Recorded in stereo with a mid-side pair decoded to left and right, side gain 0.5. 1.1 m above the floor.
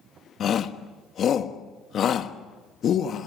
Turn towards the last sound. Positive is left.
turn(degrees=55)